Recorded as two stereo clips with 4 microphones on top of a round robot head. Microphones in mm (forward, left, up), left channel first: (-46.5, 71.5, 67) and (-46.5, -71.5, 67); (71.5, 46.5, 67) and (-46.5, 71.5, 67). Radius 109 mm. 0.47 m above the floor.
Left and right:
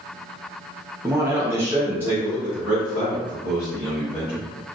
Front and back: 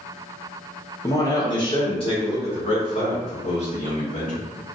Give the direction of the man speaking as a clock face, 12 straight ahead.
1 o'clock.